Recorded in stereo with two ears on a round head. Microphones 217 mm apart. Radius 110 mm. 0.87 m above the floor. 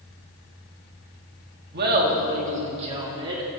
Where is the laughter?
45° right (ahead or behind), 1.7 m; by 3.5 s 20° right (ahead or behind), 2 m.